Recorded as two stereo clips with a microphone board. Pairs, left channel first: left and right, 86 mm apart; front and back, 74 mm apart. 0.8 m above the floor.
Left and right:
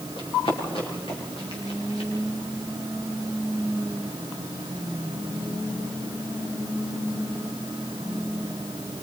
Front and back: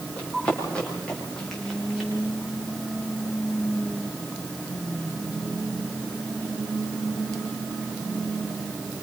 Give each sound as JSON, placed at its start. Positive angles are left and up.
{"t": 0.2, "sound": "running footsteps", "azimuth_deg": 70, "distance_m": 8.5}